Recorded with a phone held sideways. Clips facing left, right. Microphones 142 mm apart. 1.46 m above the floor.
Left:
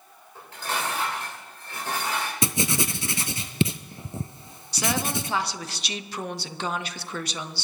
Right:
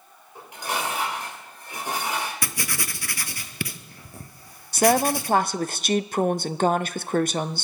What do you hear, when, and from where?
0.3 s dishes clattering: 15° right (ahead or behind), 4 m
2.4 s writing: 25° left (ahead or behind), 0.6 m
4.7 s a woman speaking: 50° right (ahead or behind), 0.6 m